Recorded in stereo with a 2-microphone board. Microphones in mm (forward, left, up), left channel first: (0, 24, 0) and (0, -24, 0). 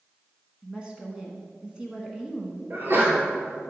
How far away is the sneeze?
About 2 m.